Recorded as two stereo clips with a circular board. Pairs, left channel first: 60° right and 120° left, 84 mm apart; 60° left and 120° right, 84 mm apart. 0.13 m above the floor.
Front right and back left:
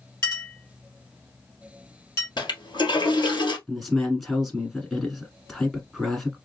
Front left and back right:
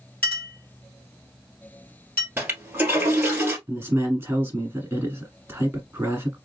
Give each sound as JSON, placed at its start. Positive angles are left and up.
{"t": 0.2, "sound": "a clink", "azimuth_deg": -5, "distance_m": 2.5}
{"t": 2.4, "sound": "a toilet flushing", "azimuth_deg": -55, "distance_m": 1.8}
{"t": 3.7, "sound": "a man speaking", "azimuth_deg": -145, "distance_m": 1.3}